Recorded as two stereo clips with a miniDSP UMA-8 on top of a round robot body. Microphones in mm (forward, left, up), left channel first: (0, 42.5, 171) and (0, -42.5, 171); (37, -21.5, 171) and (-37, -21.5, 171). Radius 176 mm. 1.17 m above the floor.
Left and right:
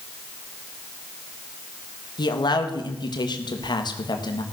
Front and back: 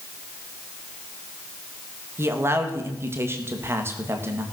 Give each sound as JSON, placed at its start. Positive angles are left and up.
{"t": 2.2, "sound": "a man speaking", "azimuth_deg": 125, "distance_m": 1.9}